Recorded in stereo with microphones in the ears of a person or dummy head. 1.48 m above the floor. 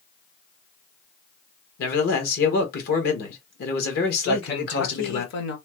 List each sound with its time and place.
1.8 s a man speaking: 55° left (ahead or behind), 1.3 m
4.2 s a man speaking: 70° left (ahead or behind), 1.0 m